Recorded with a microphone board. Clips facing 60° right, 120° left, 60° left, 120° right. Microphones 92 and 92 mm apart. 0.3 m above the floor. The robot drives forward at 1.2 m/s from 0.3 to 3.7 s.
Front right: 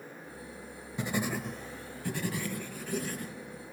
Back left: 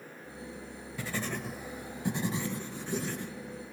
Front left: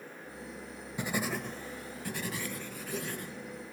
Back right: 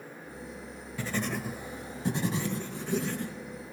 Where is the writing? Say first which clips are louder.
Front right 4 dB, back right 1 dB; straight ahead, 0.7 m; by 3.3 s straight behind, 2.5 m.